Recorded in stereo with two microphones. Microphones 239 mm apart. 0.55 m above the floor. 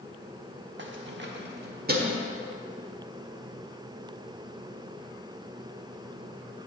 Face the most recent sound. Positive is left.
turn(degrees=-40)  # may be behind; listen again after turning